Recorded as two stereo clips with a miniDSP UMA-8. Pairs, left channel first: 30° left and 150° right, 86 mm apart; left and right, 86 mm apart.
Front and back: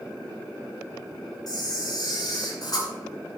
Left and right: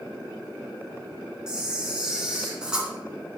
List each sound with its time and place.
1.5 s a camera shutter: 10° right, 2.5 m